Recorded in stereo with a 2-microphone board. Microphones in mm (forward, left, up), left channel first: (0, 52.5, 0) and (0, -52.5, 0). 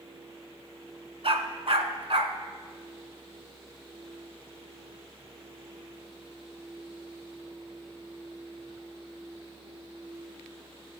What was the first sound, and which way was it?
A dog barking, 65° right (ahead or behind).